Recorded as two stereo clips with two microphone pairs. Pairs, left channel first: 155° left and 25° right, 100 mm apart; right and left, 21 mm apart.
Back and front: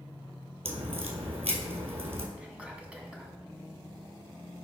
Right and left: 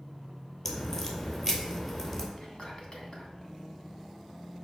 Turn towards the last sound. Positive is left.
turn(degrees=-105)